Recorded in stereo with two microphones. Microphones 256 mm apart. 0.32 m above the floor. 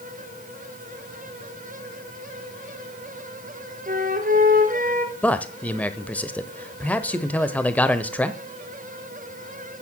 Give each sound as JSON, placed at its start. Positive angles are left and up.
{"t": 3.9, "sound": "a flute", "side_deg": -35, "distance_m": 1.6}
{"t": 5.2, "sound": "a man speaking", "side_deg": 5, "distance_m": 0.8}